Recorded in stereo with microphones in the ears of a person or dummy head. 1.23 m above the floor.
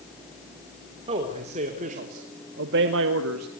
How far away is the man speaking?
About 3.5 m.